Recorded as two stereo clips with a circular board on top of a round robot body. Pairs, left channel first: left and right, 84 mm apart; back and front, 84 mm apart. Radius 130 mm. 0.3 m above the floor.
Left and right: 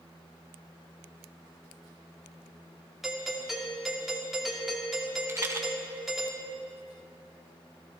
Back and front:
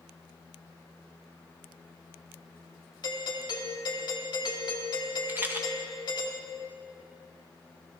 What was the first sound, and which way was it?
A doorbell, 175° right.